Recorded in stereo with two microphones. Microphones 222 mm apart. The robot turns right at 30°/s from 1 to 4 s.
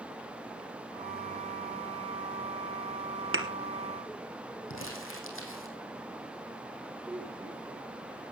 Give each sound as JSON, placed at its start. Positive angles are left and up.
{"t": 3.3, "sound": "a thud", "side_deg": -70, "distance_m": 2.0}
{"t": 4.7, "sound": "crumpling", "side_deg": 65, "distance_m": 4.0}
{"t": 7.0, "sound": "a woman speaking", "side_deg": -15, "distance_m": 7.5}